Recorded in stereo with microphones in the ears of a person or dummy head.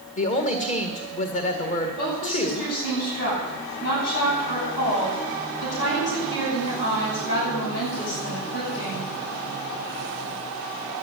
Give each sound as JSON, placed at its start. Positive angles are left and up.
{"t": 0.2, "sound": "a woman speaking", "side_deg": 40, "distance_m": 2.0}
{"t": 2.0, "sound": "a woman speaking", "side_deg": 55, "distance_m": 10.0}